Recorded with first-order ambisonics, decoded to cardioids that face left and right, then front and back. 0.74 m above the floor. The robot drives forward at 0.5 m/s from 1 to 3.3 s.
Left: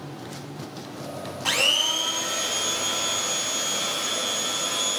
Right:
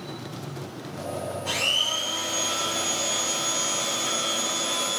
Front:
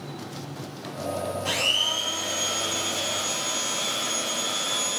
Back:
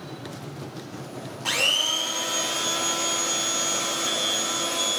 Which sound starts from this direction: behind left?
A blender, at 1.4 s.